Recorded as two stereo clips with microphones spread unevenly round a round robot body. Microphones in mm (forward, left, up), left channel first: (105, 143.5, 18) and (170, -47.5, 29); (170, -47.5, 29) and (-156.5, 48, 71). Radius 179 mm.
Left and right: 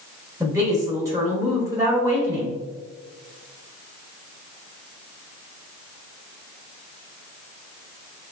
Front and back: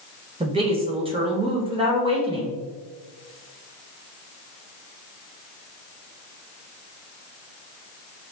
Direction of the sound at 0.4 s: 130° right.